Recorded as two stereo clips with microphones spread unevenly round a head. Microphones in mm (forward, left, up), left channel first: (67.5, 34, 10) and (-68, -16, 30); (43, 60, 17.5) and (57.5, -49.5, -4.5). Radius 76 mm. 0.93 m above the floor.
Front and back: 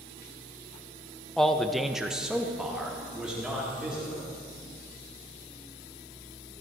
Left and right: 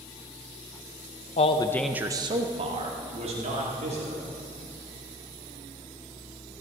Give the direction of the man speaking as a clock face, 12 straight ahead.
9 o'clock.